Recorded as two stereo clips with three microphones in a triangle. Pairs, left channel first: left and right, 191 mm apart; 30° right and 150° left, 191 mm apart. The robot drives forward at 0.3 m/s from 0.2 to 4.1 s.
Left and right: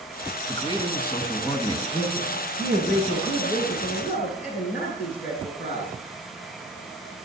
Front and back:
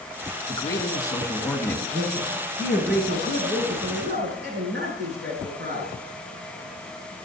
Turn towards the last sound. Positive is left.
turn(degrees=130)